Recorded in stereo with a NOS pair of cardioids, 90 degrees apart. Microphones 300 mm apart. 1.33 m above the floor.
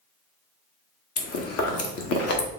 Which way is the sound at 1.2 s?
55° left.